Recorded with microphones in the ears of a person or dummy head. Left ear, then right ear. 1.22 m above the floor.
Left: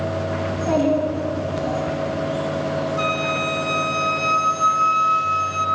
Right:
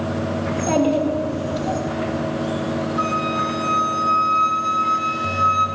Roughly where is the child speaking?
Right.